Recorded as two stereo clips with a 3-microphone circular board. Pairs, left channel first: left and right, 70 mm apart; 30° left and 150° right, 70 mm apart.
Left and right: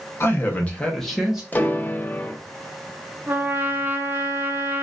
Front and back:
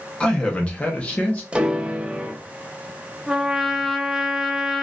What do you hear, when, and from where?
0.2 s a man speaking: 95° left, 1.0 m; by 1.4 s 20° right, 0.9 m
1.5 s a piano: 145° left, 0.5 m
3.3 s a trumpet: 70° right, 0.6 m